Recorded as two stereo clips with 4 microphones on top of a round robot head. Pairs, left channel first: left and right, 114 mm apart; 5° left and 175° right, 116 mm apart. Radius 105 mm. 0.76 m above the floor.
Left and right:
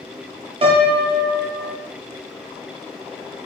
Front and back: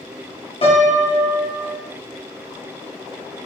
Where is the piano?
50° right, 0.6 m.